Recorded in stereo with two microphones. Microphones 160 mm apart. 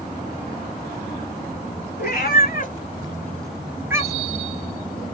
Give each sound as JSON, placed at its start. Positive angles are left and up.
{"t": 2.0, "sound": "a cat meowing", "side_deg": 75, "distance_m": 0.9}